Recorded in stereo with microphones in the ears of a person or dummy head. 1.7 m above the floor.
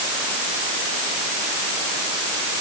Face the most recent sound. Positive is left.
No sound to turn to.